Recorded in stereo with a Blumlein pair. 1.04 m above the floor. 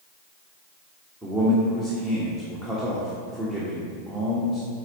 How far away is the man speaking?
About 1.4 m.